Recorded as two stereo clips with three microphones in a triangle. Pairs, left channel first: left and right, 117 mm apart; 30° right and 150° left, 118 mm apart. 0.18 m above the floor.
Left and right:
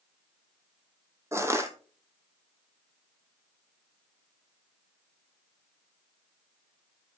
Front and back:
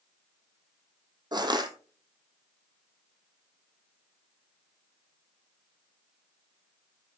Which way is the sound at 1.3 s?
155° right.